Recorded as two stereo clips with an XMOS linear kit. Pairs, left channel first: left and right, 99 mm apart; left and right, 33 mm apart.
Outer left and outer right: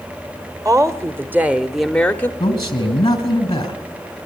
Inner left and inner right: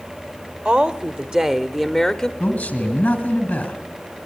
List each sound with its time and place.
0.7 s a woman speaking: 35° right (ahead or behind), 1.3 m; by 2.3 s 20° left (ahead or behind), 0.9 m
2.4 s a man speaking: 45° left (ahead or behind), 3.5 m